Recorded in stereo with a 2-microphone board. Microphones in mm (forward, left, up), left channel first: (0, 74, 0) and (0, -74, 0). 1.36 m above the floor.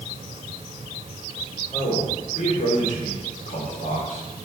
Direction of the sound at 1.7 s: 70° left (ahead or behind).